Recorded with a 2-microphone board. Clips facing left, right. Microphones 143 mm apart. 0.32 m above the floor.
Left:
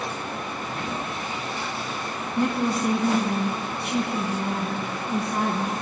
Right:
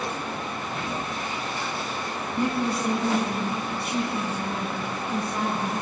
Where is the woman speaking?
70° left (ahead or behind), 2.5 m.